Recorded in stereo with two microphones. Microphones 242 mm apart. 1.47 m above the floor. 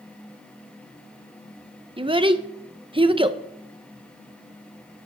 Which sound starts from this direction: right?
A child speaking, at 2.0 s.